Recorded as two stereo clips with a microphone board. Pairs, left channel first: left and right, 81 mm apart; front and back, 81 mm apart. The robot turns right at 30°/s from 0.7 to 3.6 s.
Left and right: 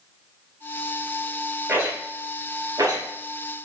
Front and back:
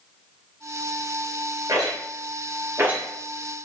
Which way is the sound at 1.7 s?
160° right.